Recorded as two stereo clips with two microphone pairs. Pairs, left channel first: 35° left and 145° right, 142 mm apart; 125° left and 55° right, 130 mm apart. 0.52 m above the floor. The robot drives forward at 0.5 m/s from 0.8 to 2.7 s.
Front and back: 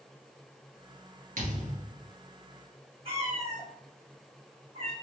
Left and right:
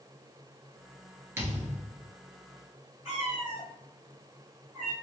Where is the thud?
125° right, 1.5 m; by 2.0 s 135° right, 1.7 m.